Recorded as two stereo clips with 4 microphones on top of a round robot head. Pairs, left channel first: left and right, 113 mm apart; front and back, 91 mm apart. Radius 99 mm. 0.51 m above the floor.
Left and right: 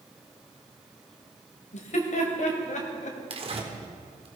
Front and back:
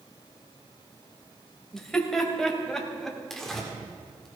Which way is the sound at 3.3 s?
85° right.